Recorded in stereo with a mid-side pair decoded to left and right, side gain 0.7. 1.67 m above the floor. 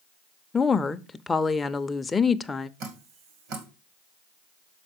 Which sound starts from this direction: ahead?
A woman speaking, at 0.5 s.